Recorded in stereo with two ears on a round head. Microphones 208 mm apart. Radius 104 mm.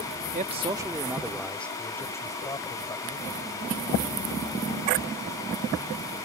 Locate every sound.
0.3 s a man speaking: 35° right (ahead or behind); by 6.2 s 25° left (ahead or behind)